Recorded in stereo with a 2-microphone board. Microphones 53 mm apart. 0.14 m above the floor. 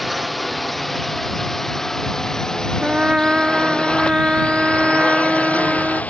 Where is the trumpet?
20° right (ahead or behind).